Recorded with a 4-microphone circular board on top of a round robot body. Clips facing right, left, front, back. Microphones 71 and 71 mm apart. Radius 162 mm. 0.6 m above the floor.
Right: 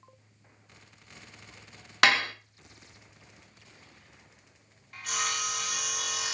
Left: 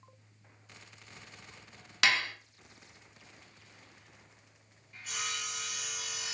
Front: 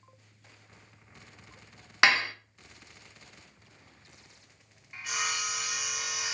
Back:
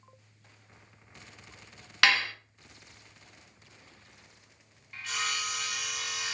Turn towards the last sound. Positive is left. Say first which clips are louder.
# right 7 dB, even
turn(degrees=-75)